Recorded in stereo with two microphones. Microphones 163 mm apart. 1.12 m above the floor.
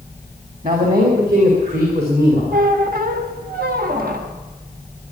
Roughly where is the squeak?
Right.